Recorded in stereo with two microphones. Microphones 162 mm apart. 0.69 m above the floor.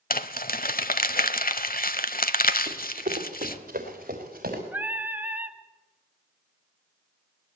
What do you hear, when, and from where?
0.1 s crumpling: 65° left (ahead or behind), 1.0 m
2.7 s running footsteps: 50° right (ahead or behind), 4.5 m; by 4.6 s 60° right (ahead or behind), 5 m
4.7 s singing: 10° right (ahead or behind), 1.2 m